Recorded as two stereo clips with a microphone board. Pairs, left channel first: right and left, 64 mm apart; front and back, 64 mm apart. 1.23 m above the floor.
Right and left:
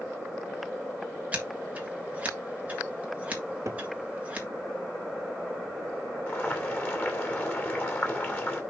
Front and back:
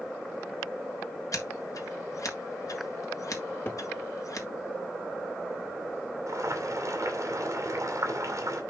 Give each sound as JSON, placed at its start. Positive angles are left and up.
{"t": 1.3, "sound": "scissors", "azimuth_deg": 25, "distance_m": 1.6}
{"t": 3.6, "sound": "a cupboard door", "azimuth_deg": 60, "distance_m": 1.3}
{"t": 6.3, "sound": "boiling", "azimuth_deg": -145, "distance_m": 2.5}